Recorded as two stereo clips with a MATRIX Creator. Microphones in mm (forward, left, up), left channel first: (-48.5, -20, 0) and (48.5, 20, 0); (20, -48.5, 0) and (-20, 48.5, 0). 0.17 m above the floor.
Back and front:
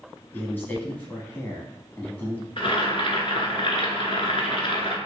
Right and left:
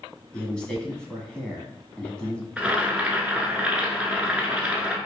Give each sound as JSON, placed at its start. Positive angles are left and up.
{"t": 0.3, "sound": "a man speaking", "azimuth_deg": -130, "distance_m": 1.0}
{"t": 2.6, "sound": "boiling", "azimuth_deg": -170, "distance_m": 0.8}